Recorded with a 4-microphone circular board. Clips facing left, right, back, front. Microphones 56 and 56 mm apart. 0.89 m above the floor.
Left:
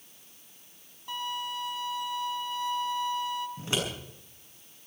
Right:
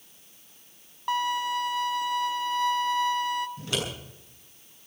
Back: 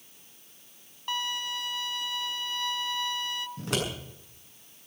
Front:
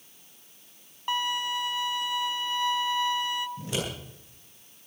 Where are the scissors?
155° left, 7.5 m.